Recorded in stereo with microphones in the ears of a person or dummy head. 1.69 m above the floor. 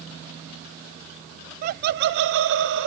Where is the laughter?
50° right (ahead or behind), 0.7 m; by 2.9 s 60° right (ahead or behind), 1.0 m.